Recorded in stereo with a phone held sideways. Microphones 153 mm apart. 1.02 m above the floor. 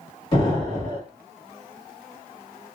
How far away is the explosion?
About 1.7 m.